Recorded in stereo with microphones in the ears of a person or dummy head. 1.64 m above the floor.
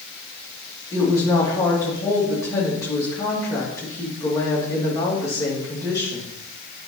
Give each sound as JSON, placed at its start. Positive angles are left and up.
{"t": 0.9, "sound": "a woman speaking", "side_deg": 15, "distance_m": 3.0}